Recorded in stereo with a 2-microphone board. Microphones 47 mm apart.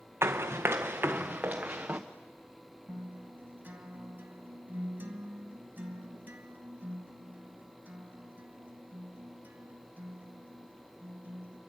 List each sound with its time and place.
0.2 s running footsteps: 60° right (ahead or behind), 1.3 m; by 2.0 s 25° right (ahead or behind), 1.9 m
2.9 s a guitar: 40° right (ahead or behind), 1.9 m